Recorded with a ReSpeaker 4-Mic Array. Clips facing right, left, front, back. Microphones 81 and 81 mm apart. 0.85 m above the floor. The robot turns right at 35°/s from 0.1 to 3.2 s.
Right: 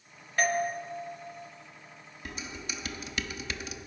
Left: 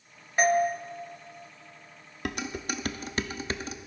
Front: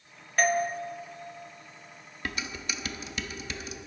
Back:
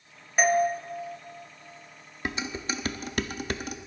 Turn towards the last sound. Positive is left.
turn(degrees=145)